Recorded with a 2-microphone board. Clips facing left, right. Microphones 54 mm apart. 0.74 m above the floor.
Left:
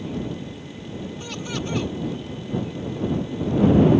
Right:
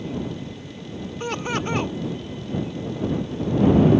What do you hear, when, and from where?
1.2 s laughter: 40° right (ahead or behind)